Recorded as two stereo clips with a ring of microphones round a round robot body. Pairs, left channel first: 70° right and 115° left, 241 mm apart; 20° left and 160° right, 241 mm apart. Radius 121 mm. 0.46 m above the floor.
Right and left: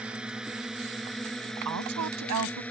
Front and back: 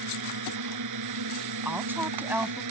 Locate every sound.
0.0 s a drone: 160° right; by 2.7 s 150° right
1.6 s a woman speaking: 120° left